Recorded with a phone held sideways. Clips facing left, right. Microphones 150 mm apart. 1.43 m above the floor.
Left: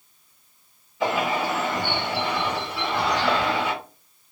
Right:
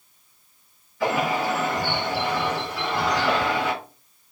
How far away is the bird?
About 1.2 m.